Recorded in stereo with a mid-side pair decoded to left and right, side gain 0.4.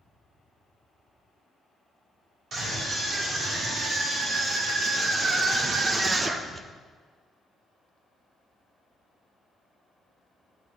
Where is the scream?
65° right, 5 m; by 6.7 s 25° right, 1.2 m.